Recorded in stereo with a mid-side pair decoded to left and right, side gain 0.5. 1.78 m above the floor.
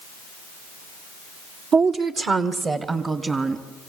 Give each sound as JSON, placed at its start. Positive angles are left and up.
{"t": 1.7, "sound": "a woman speaking", "azimuth_deg": -65, "distance_m": 1.3}